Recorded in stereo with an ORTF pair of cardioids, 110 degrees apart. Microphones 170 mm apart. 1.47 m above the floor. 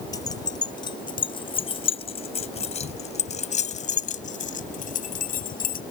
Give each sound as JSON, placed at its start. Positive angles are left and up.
{"t": 0.1, "sound": "keys jangling", "azimuth_deg": 20}